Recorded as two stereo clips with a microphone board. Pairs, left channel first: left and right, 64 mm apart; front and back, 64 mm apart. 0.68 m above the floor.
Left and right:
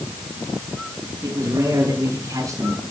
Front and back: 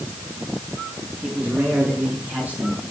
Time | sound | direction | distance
1.2 | a man speaking | 115° right | 9 m